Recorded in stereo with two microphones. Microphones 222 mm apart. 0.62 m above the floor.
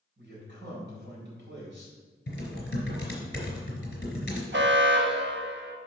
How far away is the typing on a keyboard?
About 3 m.